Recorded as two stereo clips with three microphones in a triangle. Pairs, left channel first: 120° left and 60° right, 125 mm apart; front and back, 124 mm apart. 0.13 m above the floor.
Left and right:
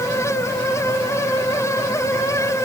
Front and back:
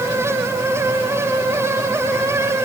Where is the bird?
No bird in this recording.